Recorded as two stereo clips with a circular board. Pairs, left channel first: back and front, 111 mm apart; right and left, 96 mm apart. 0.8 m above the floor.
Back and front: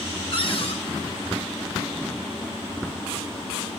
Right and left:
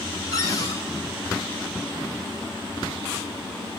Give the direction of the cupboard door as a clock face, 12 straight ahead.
5 o'clock.